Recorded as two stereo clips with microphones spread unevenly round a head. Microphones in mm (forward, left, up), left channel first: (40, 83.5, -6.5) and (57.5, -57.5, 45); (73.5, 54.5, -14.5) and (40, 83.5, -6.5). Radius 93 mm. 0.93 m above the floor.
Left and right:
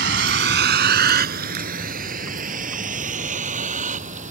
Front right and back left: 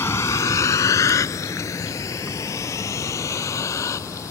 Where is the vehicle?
110° right; by 4.3 s 50° right.